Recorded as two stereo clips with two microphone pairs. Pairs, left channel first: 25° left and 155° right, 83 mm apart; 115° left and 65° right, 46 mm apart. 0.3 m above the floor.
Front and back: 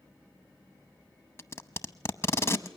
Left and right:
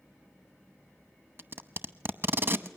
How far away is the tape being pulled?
About 0.7 m.